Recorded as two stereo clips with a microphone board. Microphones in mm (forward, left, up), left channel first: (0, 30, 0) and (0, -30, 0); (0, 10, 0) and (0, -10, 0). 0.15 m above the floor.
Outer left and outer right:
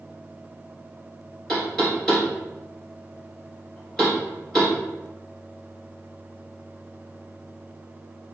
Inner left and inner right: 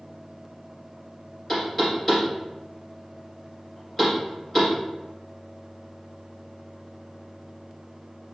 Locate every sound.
1.5 s knocking: 5° left (ahead or behind), 2.0 m